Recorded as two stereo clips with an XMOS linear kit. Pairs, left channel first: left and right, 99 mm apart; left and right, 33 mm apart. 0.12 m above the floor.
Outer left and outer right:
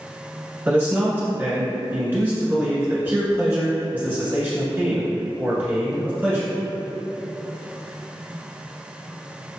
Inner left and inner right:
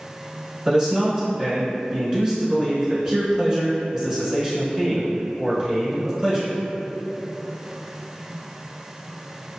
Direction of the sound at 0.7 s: 25° right (ahead or behind).